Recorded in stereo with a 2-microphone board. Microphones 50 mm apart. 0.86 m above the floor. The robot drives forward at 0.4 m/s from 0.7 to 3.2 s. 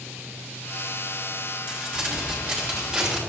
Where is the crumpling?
25° right (ahead or behind), 3 m; by 3.2 s 20° right (ahead or behind), 3.5 m.